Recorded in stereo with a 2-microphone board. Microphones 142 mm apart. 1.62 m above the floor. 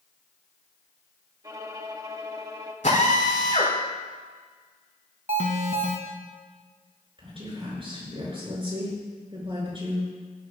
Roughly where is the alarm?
Right.